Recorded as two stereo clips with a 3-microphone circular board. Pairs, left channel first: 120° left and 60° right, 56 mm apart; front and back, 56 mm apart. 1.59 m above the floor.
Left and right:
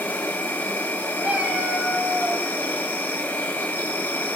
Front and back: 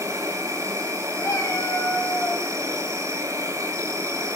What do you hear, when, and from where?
0.0 s an insect: 170° left, 6 m
1.2 s a cat meowing: straight ahead, 5.5 m